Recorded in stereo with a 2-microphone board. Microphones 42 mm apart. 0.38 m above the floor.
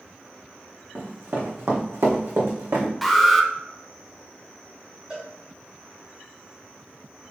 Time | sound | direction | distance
0.9 | running footsteps | 55° right (ahead or behind) | 1.5 m
3.0 | an alarm | centre (ahead or behind) | 0.6 m
5.1 | a cowbell | 25° right (ahead or behind) | 1.9 m